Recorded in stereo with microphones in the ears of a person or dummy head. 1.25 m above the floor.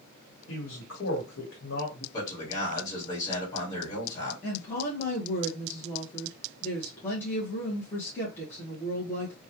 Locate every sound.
0.5 s a man speaking: 80° left, 1.2 m
2.1 s a man speaking: 20° left (ahead or behind), 2 m
4.4 s a woman speaking: 10° left (ahead or behind), 1.1 m